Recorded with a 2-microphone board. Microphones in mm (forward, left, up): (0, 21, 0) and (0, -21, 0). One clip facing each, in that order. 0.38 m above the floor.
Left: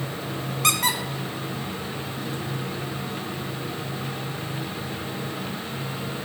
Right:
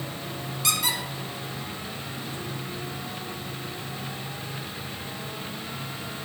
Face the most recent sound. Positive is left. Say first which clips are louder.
# left 4 dB
turn(degrees=60)  # may be behind; listen again after turning